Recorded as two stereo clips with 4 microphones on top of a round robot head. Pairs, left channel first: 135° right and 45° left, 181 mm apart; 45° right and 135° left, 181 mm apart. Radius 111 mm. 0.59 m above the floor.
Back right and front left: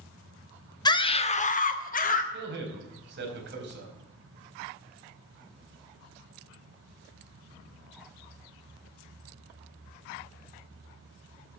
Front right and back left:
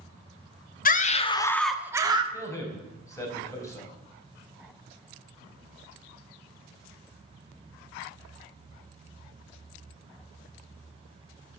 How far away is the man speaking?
About 4 m.